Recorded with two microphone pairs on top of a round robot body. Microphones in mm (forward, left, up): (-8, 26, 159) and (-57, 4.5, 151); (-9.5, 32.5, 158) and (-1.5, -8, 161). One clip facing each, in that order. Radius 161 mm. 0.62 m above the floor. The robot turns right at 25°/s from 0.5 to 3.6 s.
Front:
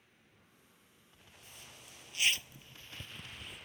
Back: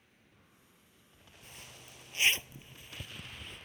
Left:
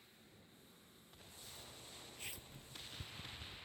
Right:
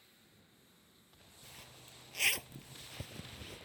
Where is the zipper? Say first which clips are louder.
Back 3 dB, right 2 dB; 115° right; by 3.7 s 60° right.